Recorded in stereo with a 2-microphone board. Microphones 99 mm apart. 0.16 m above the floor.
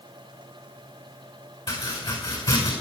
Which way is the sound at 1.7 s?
55° left (ahead or behind).